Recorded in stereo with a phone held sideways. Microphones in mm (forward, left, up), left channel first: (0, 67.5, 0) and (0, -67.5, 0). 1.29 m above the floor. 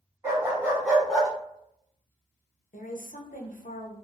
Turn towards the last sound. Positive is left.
turn(degrees=80)